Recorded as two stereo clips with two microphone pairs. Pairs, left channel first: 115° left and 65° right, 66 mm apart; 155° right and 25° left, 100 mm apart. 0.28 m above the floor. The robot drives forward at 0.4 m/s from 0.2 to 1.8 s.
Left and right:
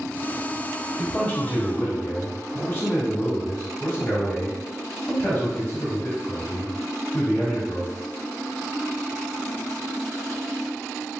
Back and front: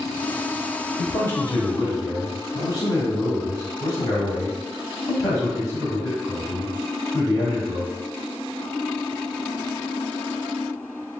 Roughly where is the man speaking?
Behind.